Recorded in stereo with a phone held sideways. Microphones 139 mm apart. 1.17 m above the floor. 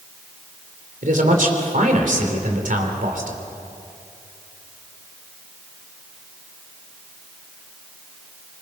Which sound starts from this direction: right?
A man speaking, at 1.0 s.